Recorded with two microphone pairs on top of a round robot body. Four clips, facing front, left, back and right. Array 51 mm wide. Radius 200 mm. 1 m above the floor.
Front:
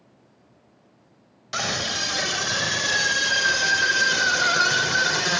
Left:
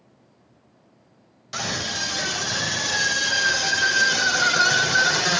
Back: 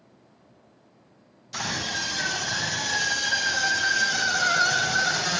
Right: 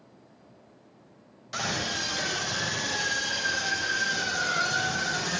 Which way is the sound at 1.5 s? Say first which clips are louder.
Left 2 dB, front 3 dB; 5° left.